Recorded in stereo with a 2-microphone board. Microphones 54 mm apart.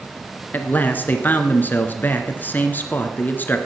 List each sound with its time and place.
0.5 s a man speaking: 35° left (ahead or behind), 1.6 m